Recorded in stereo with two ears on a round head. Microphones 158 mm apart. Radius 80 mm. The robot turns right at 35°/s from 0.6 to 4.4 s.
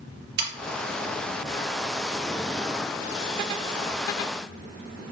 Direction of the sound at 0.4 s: 60° right (ahead or behind).